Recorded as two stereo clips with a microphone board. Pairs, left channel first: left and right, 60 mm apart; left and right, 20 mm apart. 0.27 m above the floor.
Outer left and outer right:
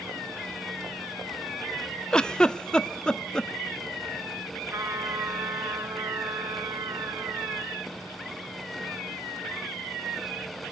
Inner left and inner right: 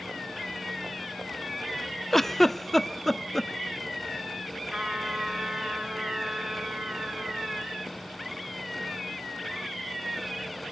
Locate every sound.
2.1 s a giggle: 15° left (ahead or behind), 0.6 m
4.7 s a trumpet: 70° right (ahead or behind), 1.8 m